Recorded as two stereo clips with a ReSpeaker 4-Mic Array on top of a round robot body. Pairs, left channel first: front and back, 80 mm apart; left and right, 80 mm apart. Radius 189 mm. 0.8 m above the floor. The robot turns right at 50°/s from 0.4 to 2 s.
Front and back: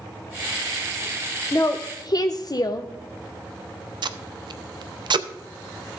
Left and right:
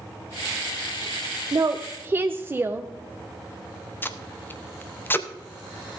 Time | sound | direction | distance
1.5 | a woman speaking | 55° right | 0.7 m
4.0 | tape being pulled | 155° left | 0.6 m